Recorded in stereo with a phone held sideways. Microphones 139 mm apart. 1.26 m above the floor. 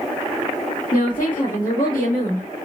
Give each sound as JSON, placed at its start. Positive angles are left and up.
{"t": 0.9, "sound": "a woman speaking", "side_deg": 80, "distance_m": 1.8}